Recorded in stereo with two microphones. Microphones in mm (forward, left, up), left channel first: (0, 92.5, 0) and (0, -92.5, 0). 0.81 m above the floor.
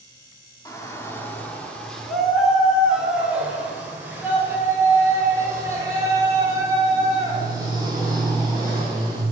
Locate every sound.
0.7 s a shout: 20° left (ahead or behind), 1.8 m; by 9.2 s 20° right (ahead or behind), 6 m